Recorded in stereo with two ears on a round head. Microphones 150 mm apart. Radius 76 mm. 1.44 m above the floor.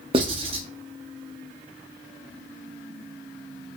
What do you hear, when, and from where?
0.1 s writing: 35° right (ahead or behind), 1.0 m